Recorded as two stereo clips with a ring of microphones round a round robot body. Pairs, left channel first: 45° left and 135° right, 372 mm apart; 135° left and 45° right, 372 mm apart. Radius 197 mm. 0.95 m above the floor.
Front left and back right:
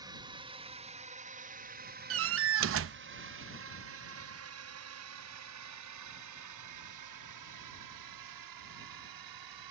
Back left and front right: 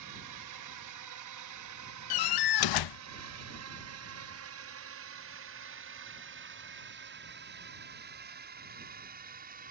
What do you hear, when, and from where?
0.0 s a drone: 55° right; by 9.7 s 110° right
2.1 s a door slam: 170° left